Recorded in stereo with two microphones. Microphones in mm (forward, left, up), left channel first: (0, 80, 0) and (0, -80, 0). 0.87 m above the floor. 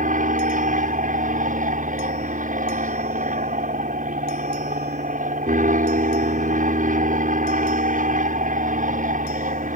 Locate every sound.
0.0 s an aircraft: 55° right (ahead or behind)